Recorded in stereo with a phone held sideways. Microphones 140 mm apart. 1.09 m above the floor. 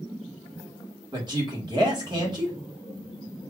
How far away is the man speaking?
About 1.8 m.